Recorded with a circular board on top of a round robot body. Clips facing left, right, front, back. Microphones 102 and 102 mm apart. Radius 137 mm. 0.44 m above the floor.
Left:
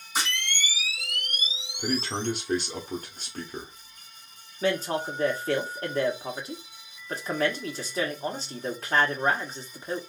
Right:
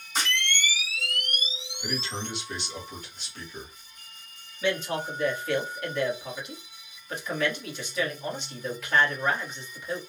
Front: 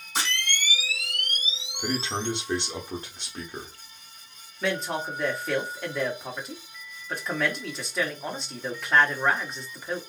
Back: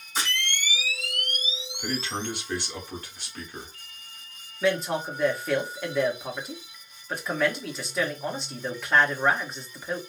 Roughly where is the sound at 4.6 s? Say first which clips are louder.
Left 2 dB, back 3 dB; left.